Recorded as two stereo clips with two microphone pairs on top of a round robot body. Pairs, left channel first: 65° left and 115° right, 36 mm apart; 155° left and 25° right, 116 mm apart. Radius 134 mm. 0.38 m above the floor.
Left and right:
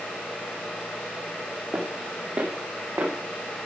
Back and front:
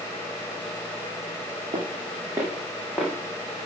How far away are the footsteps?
About 1.7 m.